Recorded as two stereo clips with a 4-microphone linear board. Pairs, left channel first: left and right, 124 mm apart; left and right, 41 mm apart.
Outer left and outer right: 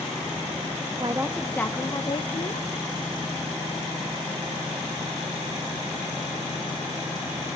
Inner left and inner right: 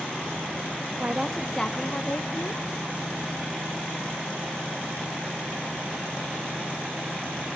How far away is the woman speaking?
About 0.7 m.